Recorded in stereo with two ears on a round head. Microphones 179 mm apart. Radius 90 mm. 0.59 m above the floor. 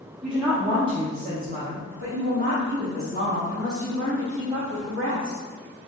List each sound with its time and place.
0.2 s a woman speaking: 5° right (ahead or behind), 0.9 m; by 5.4 s 50° right (ahead or behind), 3 m